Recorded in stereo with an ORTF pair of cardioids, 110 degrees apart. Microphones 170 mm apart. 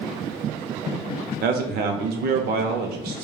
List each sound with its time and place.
1.4 s a man speaking: 70° right, 0.7 m